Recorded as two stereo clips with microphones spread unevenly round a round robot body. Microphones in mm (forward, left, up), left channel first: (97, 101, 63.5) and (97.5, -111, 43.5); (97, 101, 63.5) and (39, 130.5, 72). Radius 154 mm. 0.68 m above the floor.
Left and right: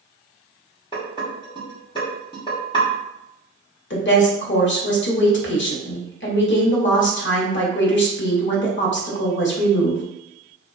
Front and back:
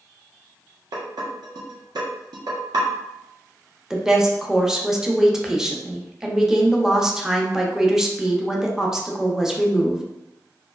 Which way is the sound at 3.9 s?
65° left.